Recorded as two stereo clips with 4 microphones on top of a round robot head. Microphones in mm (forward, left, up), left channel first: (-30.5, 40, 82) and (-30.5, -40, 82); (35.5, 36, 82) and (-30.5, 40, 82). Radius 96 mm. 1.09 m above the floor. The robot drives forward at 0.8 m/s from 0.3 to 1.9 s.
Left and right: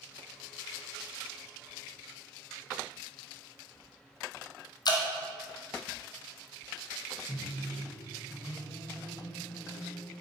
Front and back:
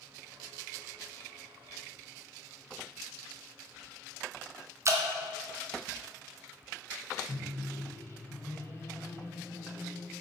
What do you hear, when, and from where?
4.8 s dripping: 125° left, 0.9 m
7.3 s a microwave: 55° left, 1.0 m